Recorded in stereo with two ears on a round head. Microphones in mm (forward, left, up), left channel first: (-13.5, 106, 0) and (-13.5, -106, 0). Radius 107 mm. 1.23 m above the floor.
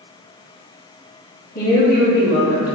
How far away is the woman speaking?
About 1.3 m.